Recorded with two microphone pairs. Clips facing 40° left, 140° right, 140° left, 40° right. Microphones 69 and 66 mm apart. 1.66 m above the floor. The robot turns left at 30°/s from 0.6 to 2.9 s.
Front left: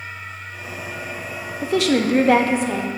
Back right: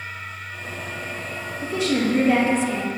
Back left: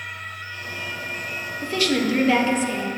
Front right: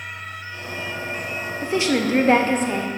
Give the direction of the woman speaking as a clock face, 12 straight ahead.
11 o'clock.